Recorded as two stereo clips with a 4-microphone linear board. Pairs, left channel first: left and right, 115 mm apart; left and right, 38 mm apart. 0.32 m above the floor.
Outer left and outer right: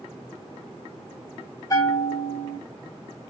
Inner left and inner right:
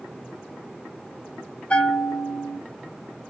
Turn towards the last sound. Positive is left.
turn(degrees=30)  # may be behind; listen again after turning